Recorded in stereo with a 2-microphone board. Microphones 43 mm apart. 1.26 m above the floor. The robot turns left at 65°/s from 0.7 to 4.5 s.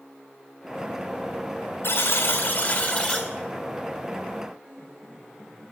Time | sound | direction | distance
1.8 | a buzzer | 115° left | 3 m
4.6 | a piano | 15° left (ahead or behind) | 5 m